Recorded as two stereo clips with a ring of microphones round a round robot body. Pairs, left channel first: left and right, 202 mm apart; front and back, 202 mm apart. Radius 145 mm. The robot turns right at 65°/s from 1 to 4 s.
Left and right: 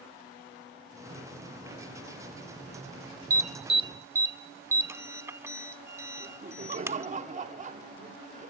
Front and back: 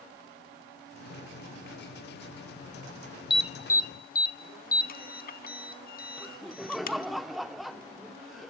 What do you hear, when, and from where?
3.3 s an alarm: 60° right, 1.0 m; by 7.1 s 15° right, 1.0 m
6.2 s laughter: 90° right, 0.9 m